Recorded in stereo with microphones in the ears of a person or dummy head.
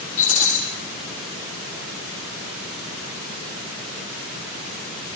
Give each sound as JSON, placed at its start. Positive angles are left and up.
{"t": 0.2, "sound": "a rattle", "side_deg": 30, "distance_m": 8.5}